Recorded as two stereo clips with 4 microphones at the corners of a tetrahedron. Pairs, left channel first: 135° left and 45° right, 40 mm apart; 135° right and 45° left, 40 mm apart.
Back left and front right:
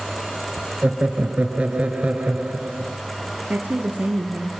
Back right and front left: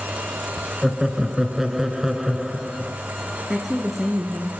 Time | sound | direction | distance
0.8 | laughter | 30° right | 1.6 m
3.5 | a woman speaking | 45° right | 2.0 m